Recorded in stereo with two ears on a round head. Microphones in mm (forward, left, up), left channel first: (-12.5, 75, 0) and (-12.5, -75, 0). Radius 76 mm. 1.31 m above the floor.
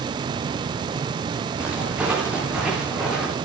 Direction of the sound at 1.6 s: 10° right (ahead or behind).